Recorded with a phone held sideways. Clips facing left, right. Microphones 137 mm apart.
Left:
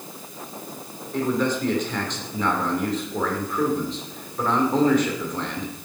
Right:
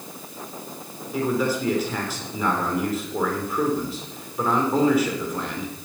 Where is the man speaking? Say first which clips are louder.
Even; 5° right (ahead or behind), 3 m.